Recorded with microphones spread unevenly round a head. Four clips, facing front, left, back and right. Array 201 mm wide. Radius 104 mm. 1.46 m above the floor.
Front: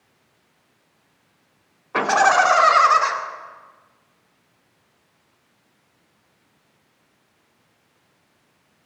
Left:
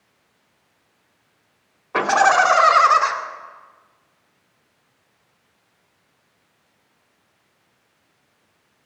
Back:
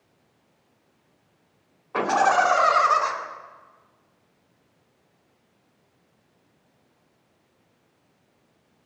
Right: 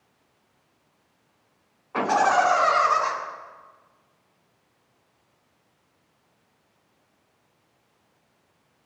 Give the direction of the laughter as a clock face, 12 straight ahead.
10 o'clock.